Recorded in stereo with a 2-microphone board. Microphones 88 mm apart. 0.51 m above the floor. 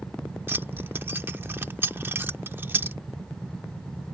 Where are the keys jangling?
25° right (ahead or behind).